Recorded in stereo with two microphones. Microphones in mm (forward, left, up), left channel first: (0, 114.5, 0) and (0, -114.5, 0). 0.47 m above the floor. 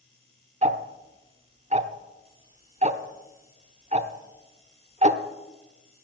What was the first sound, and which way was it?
Ticking, 30° right (ahead or behind).